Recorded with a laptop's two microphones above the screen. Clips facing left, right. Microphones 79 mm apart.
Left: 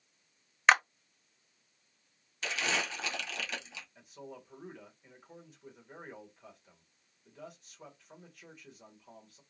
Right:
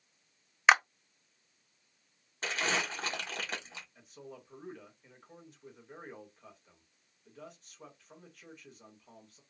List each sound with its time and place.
0.7 s a clap: 5° right (ahead or behind), 0.5 m
2.4 s crumpling: 40° right (ahead or behind), 1.1 m
4.0 s a man speaking: centre (ahead or behind), 1.4 m